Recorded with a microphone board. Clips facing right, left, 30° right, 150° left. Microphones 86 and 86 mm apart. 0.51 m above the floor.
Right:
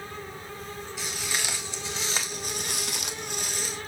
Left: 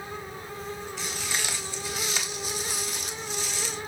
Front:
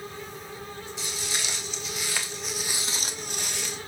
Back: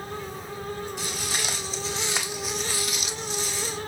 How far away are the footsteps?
About 2.5 m.